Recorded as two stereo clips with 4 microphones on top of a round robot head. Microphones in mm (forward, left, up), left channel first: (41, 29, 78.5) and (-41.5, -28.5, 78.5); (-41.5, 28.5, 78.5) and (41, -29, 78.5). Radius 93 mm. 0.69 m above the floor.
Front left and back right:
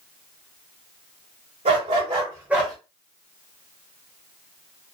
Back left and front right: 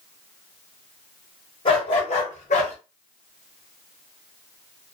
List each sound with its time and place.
1.6 s a dog barking: 175° right, 1.2 m; by 2.8 s 115° left, 0.8 m